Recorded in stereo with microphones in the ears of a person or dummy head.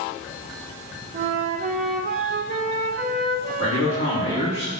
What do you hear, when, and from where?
1.1 s a flute: 40° right (ahead or behind), 1.7 m
3.6 s a man speaking: 40° left (ahead or behind), 4 m